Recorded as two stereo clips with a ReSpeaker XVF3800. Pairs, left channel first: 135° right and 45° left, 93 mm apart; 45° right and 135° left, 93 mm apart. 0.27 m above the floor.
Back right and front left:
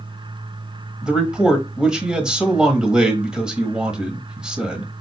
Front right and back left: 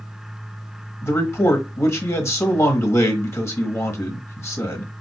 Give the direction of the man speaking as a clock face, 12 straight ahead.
1 o'clock.